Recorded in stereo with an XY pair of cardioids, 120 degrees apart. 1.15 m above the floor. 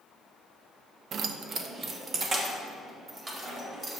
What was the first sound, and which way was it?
Keys jangling, 55° right.